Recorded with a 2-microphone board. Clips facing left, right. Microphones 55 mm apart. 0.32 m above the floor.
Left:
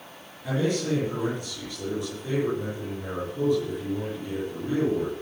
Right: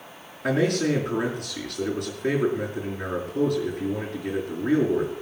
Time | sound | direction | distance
0.4 | a man speaking | 75° right (ahead or behind) | 5 m